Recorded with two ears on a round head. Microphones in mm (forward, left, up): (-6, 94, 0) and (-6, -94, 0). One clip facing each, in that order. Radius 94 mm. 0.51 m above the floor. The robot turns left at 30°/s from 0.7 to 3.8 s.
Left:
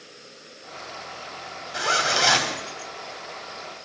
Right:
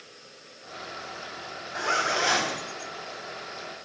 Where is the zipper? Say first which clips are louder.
Left 2 dB; 45° left (ahead or behind), 3.5 m; by 2.6 s 65° left (ahead or behind), 3.5 m.